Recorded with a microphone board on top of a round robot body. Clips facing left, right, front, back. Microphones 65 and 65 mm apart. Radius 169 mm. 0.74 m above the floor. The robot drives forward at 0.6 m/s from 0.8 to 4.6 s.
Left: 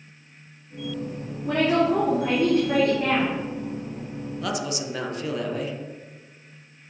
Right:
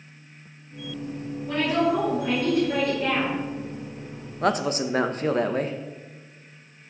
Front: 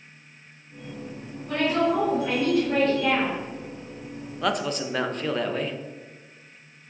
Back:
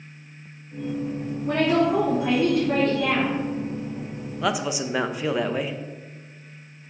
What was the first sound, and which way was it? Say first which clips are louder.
A woman speaking: left 2 dB, back 2 dB; 125° left.